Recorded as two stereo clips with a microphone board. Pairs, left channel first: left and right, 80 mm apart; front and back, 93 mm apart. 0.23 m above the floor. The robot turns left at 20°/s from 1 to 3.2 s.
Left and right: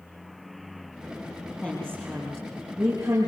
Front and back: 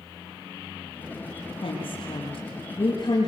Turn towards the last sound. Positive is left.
turn(degrees=-45)